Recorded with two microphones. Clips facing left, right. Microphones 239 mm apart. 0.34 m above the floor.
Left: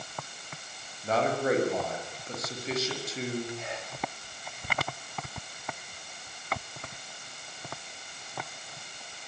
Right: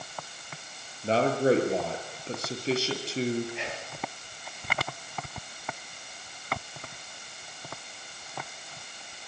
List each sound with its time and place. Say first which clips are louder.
1.0 s a man speaking: right 4 dB; 30° right (ahead or behind), 6.5 m
3.5 s whispering: right 1 dB; 80° right, 7 m